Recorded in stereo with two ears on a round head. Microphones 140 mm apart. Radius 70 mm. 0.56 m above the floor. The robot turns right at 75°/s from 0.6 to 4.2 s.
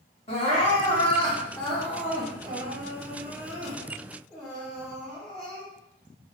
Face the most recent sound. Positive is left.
turn(degrees=5)